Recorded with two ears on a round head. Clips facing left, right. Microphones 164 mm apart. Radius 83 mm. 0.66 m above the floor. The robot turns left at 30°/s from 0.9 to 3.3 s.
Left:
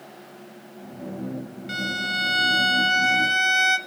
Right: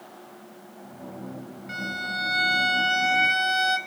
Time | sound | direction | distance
1.7 | a violin | 65° left | 1.1 m